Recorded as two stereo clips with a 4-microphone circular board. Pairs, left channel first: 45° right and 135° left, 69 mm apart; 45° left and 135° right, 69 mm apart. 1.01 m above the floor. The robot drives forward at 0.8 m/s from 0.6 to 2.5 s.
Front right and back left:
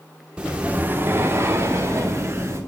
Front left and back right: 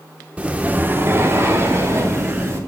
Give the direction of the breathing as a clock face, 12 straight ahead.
6 o'clock.